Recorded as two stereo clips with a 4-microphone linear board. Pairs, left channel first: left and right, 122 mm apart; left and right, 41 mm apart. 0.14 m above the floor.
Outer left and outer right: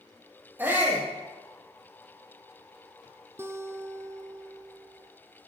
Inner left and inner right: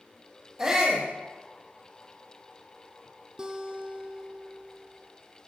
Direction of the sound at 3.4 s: 20° right (ahead or behind).